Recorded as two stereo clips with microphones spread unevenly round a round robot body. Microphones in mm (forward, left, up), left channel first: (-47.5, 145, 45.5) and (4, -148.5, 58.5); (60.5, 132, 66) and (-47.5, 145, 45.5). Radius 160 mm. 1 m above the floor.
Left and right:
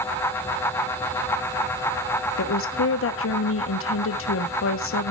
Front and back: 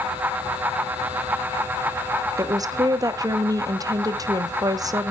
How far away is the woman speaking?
About 1.0 m.